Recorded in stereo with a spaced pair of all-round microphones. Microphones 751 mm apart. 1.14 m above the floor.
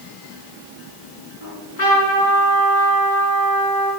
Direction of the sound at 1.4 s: 80° left.